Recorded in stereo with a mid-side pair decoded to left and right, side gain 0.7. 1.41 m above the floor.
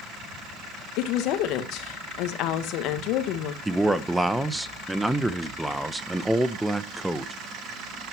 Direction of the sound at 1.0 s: 60° left.